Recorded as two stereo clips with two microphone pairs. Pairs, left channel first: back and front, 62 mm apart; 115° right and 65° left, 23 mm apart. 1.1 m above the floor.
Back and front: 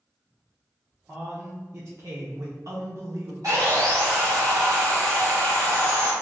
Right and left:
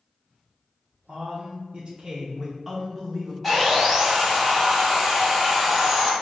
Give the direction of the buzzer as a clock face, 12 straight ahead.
I don't hear a buzzer.